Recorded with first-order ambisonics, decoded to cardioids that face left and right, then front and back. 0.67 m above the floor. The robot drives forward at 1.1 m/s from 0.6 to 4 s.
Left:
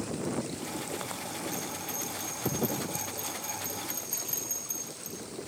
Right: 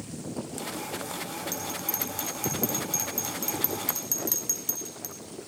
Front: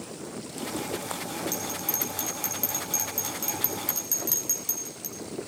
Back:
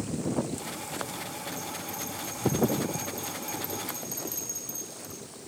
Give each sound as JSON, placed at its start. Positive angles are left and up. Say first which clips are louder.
{"t": 1.5, "sound": "a bell", "louder": "right 2 dB, front 4 dB", "azimuth_deg": -40, "distance_m": 7.5}